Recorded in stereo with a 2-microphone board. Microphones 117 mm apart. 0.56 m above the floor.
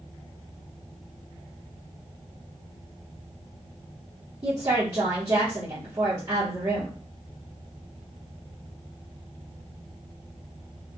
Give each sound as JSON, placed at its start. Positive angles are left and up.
{"t": 4.4, "sound": "a woman speaking", "side_deg": -35, "distance_m": 1.2}